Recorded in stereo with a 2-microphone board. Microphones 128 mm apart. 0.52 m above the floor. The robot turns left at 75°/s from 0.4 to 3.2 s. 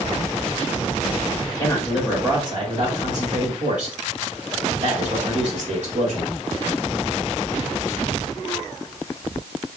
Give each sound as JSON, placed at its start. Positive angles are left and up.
{"t": 1.4, "sound": "a man speaking", "azimuth_deg": 40, "distance_m": 1.6}